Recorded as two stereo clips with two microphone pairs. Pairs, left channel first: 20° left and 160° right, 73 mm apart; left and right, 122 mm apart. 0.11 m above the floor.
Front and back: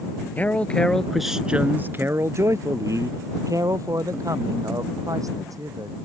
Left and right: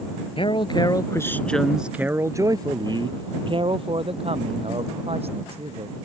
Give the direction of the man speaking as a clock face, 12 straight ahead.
9 o'clock.